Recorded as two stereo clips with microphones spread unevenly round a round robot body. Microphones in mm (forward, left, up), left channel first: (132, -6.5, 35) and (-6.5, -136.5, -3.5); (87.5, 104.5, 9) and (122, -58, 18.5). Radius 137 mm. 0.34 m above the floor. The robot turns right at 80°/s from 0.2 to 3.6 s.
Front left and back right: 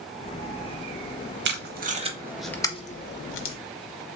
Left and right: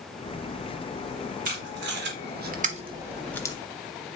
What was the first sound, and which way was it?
Tape being pulled, 130° right.